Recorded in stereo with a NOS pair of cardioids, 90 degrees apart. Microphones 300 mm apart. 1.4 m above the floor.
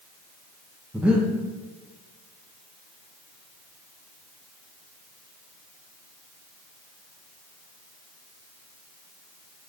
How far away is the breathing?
About 0.9 m.